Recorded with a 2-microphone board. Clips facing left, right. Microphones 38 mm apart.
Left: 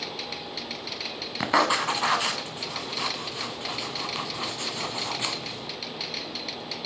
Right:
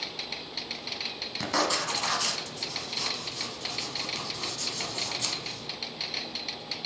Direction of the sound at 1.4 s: 35° left (ahead or behind).